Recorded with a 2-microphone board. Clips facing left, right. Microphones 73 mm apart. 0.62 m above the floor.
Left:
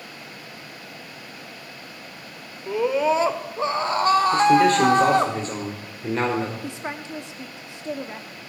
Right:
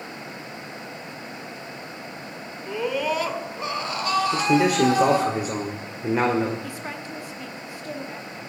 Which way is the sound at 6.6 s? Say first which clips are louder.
Left 2 dB; 20° left (ahead or behind).